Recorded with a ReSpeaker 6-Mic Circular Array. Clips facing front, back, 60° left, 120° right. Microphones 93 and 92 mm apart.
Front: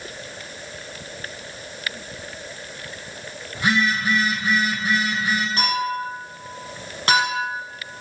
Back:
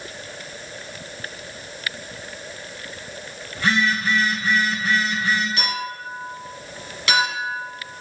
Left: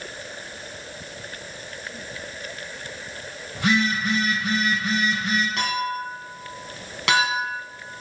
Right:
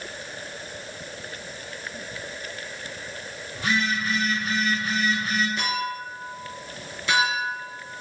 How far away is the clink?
About 3.5 m.